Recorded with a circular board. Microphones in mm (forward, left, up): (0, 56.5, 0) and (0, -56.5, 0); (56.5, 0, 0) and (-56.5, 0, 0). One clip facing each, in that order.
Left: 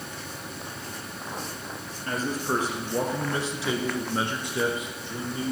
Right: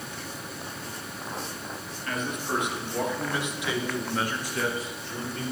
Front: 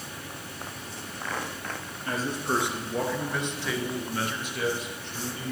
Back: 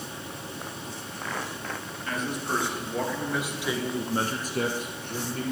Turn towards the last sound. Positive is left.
turn(degrees=165)